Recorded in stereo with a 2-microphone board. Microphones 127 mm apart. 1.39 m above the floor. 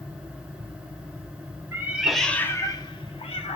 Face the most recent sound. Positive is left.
turn(degrees=55)  # may be behind; listen again after turning